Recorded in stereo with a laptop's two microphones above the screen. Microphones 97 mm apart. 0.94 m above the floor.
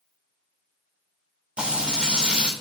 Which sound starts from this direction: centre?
Frying, at 1.6 s.